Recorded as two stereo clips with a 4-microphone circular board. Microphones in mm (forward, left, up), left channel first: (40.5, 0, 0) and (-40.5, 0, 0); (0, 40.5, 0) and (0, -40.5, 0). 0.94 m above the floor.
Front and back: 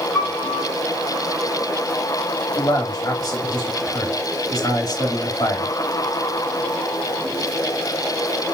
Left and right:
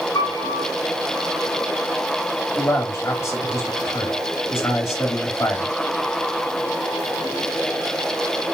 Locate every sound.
0.1 s a piano: 75° left, 2.5 m
2.6 s a man speaking: 40° left, 1.6 m